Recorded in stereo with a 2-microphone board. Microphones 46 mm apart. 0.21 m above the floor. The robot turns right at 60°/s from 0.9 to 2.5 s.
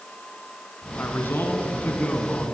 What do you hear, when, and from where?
1.0 s a man speaking: 65° left, 1.8 m; by 2.5 s 155° left, 1.8 m